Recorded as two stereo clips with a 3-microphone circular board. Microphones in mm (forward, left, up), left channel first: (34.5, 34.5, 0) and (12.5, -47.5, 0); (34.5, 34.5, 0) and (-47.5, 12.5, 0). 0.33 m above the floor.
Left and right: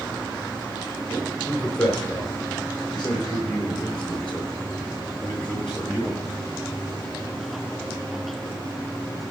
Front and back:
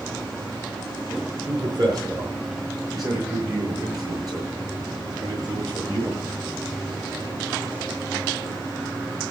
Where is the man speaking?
160° left, 5.5 m; by 6.2 s 155° left, 8 m.